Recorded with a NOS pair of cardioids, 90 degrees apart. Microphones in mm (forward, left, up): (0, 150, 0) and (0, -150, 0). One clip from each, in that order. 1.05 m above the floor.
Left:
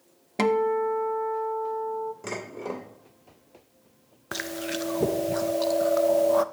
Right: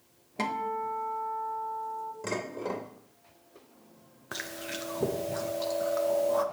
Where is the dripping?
I don't hear dripping.